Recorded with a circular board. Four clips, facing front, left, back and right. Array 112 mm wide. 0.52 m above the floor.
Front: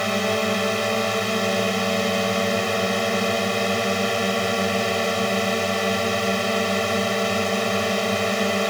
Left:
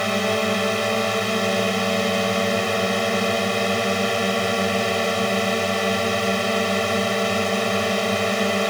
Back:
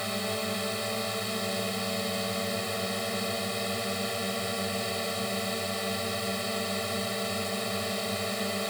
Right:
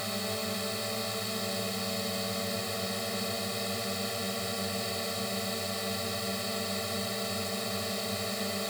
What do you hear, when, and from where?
0.0 s a drone: 50° left